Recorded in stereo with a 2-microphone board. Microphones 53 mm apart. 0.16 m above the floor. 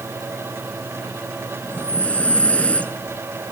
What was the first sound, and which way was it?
Breathing, 25° left (ahead or behind).